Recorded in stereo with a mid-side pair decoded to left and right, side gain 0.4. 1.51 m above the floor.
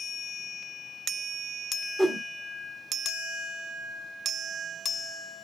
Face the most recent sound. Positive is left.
turn(degrees=-15)